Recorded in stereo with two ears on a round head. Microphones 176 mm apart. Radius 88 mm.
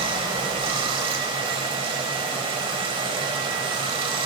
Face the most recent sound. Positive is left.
turn(degrees=-25)  # may be behind; listen again after turning